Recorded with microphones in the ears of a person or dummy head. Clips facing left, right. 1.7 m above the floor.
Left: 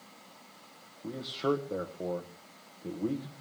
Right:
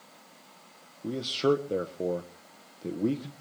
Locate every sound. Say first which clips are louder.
1.0 s a man speaking: right 5 dB; 35° right (ahead or behind), 1.2 m